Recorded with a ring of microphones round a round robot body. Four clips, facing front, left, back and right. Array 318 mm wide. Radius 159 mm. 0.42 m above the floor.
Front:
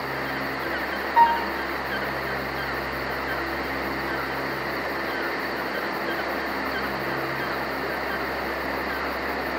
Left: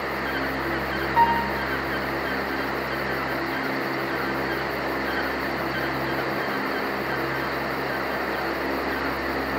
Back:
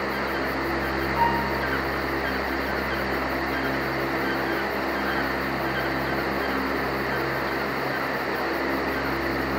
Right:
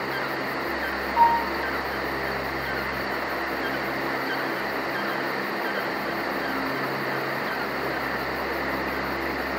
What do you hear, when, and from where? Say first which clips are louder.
1.2 s a piano: right 1 dB, front 6 dB; 10° left, 3.5 m